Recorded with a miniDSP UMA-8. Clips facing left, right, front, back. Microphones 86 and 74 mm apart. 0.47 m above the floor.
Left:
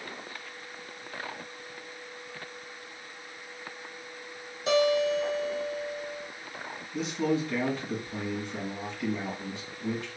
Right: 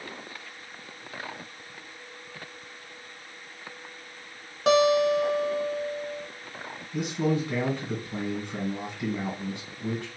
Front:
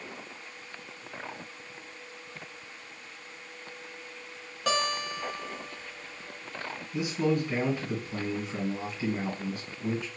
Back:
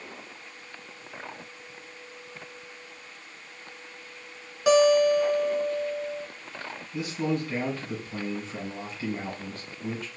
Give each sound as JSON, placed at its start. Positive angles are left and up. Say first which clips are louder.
{"t": 4.7, "sound": "a guitar", "louder": "right 4 dB, back 12 dB", "azimuth_deg": -100, "distance_m": 1.0}
{"t": 6.9, "sound": "a man speaking", "louder": "right 1 dB, front 1 dB", "azimuth_deg": -75, "distance_m": 2.0}